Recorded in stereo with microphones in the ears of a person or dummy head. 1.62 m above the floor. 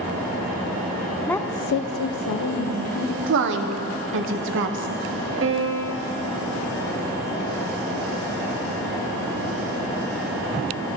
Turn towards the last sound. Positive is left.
turn(degrees=-65)  # may be behind; listen again after turning